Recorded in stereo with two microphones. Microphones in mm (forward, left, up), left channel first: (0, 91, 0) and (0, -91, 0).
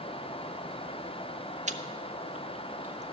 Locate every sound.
1.7 s chewing: 40° right (ahead or behind), 0.7 m